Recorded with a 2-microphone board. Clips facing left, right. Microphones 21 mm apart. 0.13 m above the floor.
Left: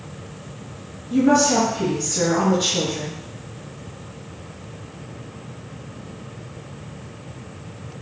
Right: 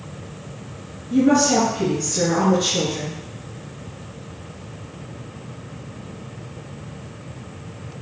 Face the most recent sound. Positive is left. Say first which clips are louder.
# even
turn(degrees=15)  # may be behind; listen again after turning